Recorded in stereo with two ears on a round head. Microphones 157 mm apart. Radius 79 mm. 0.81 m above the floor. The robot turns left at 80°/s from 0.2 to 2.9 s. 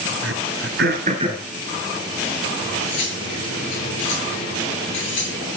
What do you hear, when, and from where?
0.2 s throat clearing: 70° right (ahead or behind), 5 m; by 1.5 s 10° right (ahead or behind), 5 m
2.6 s cutlery clinking: 85° left, 7 m; by 5.5 s 70° left (ahead or behind), 7 m